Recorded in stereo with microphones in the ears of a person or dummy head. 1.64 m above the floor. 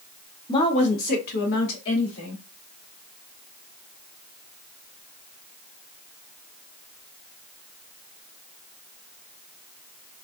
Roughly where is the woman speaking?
Left.